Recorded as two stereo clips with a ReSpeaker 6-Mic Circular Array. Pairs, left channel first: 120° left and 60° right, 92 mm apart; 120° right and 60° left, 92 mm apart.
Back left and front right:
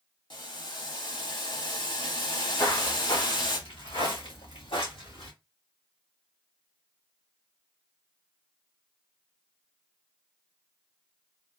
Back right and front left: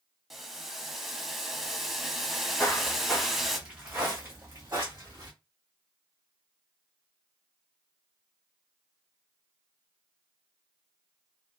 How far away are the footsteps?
About 1.2 m.